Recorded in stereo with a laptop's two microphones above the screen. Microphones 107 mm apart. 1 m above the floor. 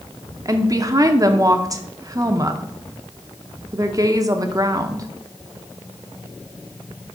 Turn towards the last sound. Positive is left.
turn(degrees=-30)  # may be behind; listen again after turning